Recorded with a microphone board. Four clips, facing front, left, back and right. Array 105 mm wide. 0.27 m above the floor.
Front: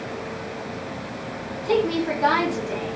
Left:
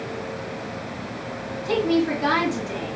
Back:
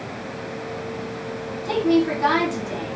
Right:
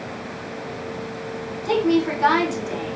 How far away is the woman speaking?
About 1.9 m.